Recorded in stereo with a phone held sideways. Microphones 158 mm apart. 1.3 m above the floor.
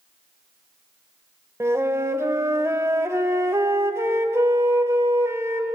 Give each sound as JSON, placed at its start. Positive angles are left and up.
{"t": 1.6, "sound": "a flute", "side_deg": -15, "distance_m": 1.2}